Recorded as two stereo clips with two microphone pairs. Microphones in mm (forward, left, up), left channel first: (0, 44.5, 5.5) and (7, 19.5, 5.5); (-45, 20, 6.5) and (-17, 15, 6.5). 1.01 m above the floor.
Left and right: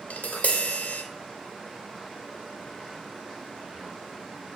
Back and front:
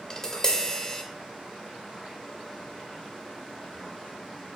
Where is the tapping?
105° left, 2 m.